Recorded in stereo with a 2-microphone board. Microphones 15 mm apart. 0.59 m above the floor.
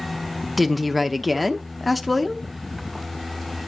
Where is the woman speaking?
Centre (ahead or behind), 0.8 m.